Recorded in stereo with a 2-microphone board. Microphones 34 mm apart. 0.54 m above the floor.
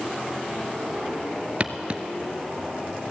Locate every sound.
1.6 s footsteps: 35° right (ahead or behind), 0.5 m